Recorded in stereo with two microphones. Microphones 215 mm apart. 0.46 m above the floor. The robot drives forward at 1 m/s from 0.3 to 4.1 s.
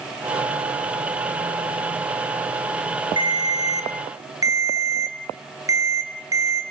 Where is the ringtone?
20° right (ahead or behind), 3.5 m; by 6.6 s 15° right (ahead or behind), 4.5 m.